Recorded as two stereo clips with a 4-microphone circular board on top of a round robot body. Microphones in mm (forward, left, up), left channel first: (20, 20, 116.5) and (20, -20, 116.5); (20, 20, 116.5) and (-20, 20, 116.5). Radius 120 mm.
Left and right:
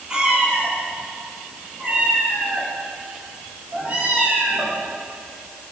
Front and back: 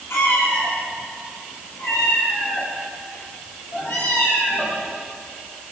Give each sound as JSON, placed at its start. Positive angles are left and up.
{"t": 0.1, "sound": "a cat meowing", "azimuth_deg": -20, "distance_m": 8.5}